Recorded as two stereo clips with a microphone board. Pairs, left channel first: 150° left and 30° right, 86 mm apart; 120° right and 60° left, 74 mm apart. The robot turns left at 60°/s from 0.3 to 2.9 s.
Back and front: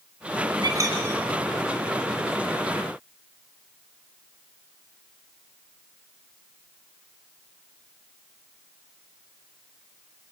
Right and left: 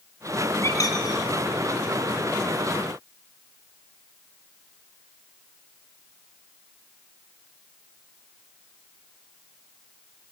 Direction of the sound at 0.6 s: 65° right.